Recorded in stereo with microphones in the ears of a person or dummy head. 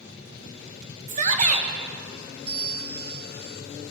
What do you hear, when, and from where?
1.1 s a shout: 40° right (ahead or behind), 1.6 m
2.5 s a bell: 70° right (ahead or behind), 3 m